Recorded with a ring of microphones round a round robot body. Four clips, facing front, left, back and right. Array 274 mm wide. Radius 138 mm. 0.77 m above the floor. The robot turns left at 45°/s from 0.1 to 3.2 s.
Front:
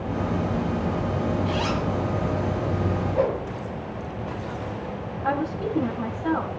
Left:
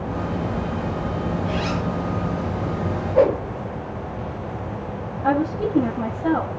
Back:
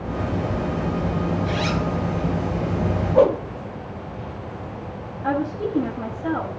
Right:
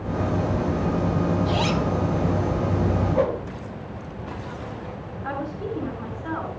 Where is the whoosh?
145° left, 2.0 m.